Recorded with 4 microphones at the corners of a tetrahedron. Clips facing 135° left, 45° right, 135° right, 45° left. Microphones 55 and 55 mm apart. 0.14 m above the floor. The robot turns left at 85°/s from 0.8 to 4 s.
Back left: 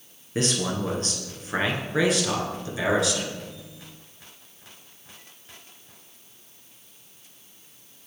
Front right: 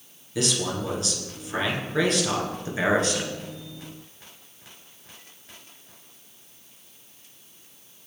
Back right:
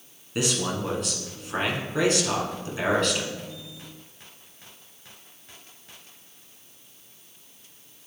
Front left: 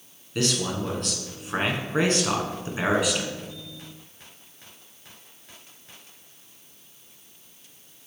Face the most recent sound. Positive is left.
turn(degrees=-115)